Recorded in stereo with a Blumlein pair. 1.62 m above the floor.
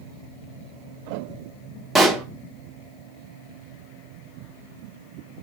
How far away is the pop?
About 1.4 m.